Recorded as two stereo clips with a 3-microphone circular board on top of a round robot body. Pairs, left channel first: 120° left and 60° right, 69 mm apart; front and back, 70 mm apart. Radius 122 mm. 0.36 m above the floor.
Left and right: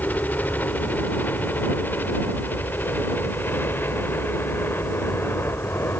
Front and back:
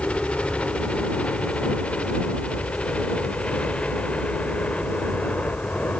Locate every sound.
0.0 s a helicopter: 65° left; by 6.0 s 70° left